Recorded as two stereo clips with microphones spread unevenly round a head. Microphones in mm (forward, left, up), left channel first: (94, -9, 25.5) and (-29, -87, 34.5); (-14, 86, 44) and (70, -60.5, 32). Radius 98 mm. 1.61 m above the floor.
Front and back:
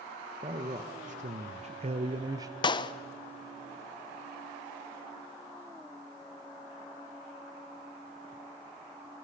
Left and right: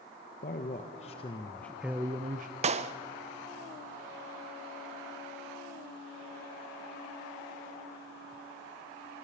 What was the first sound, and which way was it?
A man speaking, 160° left.